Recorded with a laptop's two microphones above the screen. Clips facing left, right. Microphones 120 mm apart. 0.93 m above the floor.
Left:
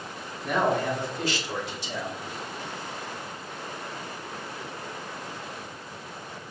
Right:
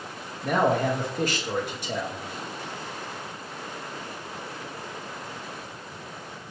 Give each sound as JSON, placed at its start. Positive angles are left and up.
{"t": 0.4, "sound": "a man speaking", "side_deg": -55, "distance_m": 1.1}